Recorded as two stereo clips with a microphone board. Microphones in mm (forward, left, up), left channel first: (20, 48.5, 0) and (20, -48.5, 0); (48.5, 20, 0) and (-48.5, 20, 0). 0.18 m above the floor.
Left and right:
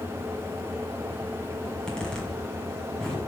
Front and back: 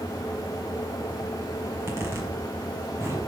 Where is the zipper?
160° left, 1.8 m.